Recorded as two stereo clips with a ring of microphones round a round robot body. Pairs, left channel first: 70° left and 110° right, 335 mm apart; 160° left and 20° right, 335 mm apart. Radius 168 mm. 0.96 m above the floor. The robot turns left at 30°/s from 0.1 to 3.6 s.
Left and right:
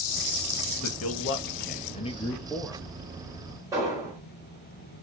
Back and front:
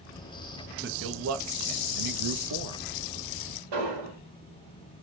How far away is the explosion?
About 5 m.